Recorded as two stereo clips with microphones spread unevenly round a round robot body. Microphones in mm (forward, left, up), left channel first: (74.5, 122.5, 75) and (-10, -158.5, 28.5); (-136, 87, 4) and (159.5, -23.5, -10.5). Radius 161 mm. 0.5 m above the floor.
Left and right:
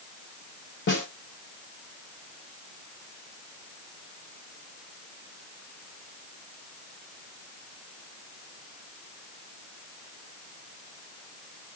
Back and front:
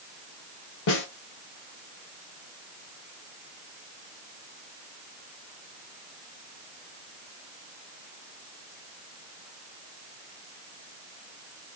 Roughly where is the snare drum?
Behind left.